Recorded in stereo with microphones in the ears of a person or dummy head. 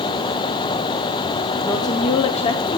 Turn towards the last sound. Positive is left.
turn(degrees=25)  # may be behind; listen again after turning